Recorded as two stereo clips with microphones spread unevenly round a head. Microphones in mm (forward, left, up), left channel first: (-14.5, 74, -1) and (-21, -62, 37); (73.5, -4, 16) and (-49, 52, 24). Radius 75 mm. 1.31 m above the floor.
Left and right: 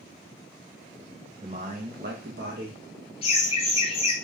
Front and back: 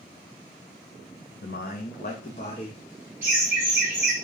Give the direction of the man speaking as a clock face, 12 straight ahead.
1 o'clock.